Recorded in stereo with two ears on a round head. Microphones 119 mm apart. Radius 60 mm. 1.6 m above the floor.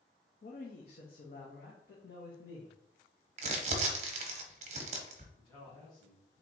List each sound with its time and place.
0.4 s a man speaking: 55° left (ahead or behind), 0.5 m; by 2.8 s 80° left, 1.8 m
3.4 s crumpling: 50° right (ahead or behind), 0.8 m
5.4 s a man speaking: 25° left (ahead or behind), 1.4 m